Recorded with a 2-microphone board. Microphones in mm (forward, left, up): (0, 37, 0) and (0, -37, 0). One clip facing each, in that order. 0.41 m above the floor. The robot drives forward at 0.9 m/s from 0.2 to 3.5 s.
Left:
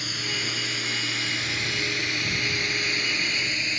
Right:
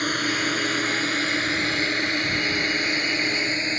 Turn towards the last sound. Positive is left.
turn(degrees=-35)  # may be behind; listen again after turning